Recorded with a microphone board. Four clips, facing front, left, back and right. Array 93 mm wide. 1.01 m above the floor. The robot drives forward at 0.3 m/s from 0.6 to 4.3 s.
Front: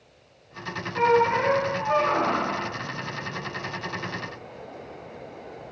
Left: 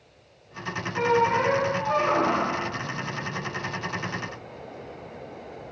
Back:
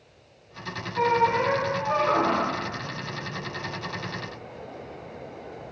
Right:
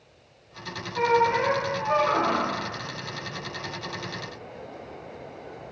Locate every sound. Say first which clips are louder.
0.9 s a squeak: even, front 2 dB; straight ahead, 0.6 m; by 2.5 s 170° right, 0.5 m